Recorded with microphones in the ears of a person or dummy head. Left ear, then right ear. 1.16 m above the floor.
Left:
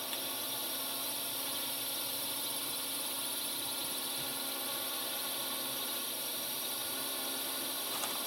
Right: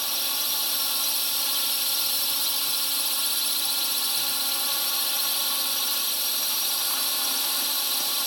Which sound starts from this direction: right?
A drone, at 0.0 s.